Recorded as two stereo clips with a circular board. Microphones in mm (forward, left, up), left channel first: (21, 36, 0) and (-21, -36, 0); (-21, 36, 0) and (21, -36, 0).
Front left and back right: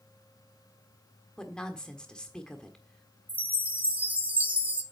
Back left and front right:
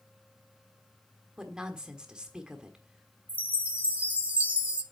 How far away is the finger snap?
No finger snap in this recording.